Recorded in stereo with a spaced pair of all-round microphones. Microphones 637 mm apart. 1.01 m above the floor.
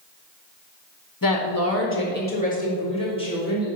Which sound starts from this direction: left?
A woman speaking, at 1.2 s.